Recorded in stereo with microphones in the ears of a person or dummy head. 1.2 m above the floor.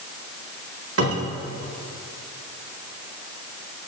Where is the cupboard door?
85° right, 2 m.